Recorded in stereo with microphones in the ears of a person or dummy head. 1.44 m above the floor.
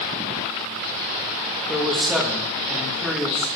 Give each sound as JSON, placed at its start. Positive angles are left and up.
{"t": 1.7, "sound": "a man speaking", "side_deg": -5, "distance_m": 1.4}